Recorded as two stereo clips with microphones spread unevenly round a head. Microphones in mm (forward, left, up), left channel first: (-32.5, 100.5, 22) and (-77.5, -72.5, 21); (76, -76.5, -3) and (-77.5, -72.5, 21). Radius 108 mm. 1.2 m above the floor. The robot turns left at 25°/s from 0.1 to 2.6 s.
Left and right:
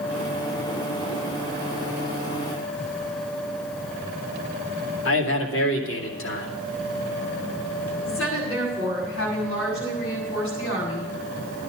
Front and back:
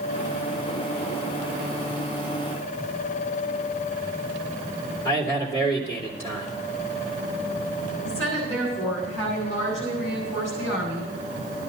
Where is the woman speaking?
80° left, 8 m.